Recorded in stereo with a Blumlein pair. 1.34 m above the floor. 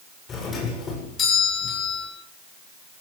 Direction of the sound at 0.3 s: 20° left.